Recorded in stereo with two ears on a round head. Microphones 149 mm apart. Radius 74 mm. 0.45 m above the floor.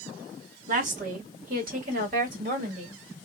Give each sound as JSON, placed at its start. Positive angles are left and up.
{"t": 0.7, "sound": "a woman speaking", "side_deg": -50, "distance_m": 1.6}